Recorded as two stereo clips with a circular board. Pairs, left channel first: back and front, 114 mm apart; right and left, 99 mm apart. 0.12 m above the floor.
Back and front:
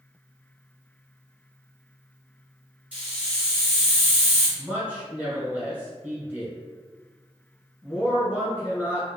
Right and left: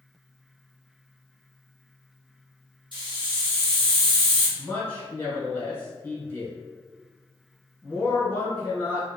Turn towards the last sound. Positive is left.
turn(degrees=-50)